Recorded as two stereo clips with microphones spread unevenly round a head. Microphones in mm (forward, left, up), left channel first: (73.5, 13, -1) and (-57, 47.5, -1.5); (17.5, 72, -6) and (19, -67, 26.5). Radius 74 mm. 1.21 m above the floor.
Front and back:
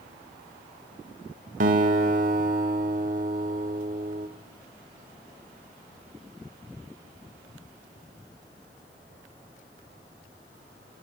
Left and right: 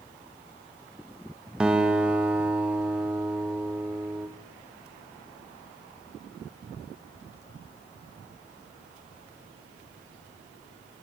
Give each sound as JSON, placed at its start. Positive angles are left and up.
{"t": 1.6, "sound": "a guitar", "azimuth_deg": -165, "distance_m": 1.5}